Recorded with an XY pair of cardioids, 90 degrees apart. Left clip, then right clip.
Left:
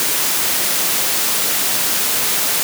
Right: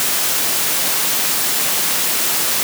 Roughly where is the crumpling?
No crumpling in this recording.